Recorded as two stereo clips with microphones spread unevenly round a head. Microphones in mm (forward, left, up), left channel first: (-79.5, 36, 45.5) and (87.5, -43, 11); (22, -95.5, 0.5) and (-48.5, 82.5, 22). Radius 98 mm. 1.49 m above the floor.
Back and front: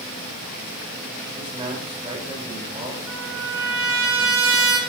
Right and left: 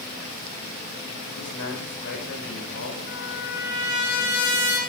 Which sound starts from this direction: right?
A man speaking, at 1.4 s.